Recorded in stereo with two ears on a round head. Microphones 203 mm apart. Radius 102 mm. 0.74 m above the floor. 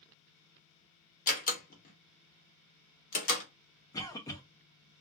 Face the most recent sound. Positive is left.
turn(degrees=15)  # may be behind; listen again after turning